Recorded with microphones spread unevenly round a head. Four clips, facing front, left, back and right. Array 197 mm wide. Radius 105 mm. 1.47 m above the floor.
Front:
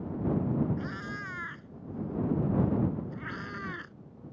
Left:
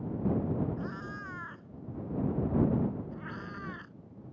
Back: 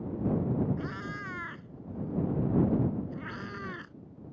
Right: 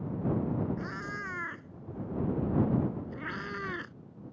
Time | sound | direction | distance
0.8 | a cat meowing | 110° right | ?